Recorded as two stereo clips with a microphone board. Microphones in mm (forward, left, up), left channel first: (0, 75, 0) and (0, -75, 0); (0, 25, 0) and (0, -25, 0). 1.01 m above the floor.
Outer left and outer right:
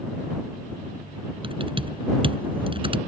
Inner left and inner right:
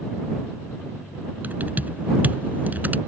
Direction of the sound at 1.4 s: 35° right (ahead or behind).